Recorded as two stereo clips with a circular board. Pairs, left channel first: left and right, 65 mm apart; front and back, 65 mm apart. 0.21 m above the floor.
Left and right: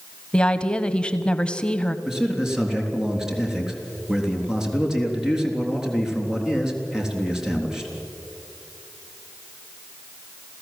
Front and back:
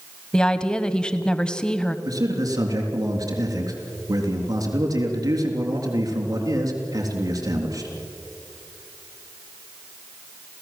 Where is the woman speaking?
55° left, 1.0 m.